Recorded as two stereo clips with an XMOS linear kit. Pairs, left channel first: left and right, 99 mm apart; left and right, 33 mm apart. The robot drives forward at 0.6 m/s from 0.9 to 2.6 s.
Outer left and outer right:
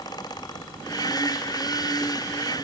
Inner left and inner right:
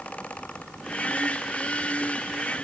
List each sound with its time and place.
Only background noise.